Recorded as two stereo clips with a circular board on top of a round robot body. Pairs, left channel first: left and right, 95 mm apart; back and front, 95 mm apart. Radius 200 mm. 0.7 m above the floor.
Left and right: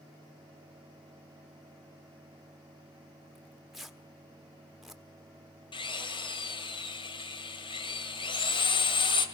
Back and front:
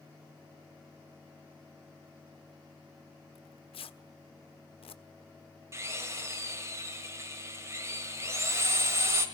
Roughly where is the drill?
Ahead left.